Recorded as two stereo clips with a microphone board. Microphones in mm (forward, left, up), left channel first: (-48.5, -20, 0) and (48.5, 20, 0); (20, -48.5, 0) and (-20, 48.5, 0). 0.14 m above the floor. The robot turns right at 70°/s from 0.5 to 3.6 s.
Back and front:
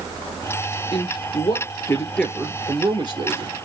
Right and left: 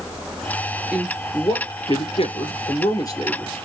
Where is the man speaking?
170° right, 3 m; by 3.5 s 15° left, 3 m.